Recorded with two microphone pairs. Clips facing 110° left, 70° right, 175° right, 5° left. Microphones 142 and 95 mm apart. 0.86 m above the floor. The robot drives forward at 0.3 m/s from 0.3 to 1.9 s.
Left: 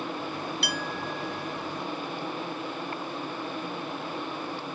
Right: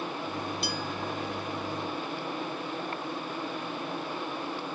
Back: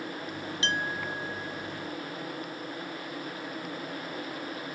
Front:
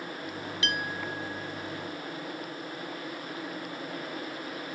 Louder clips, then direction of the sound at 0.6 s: Even, back 2 dB; 125° left.